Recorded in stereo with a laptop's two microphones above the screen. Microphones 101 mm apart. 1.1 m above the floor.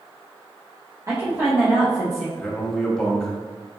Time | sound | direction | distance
1.1 | a woman speaking | 30° right (ahead or behind) | 1.0 m
2.4 | a man speaking | 5° left (ahead or behind) | 1.2 m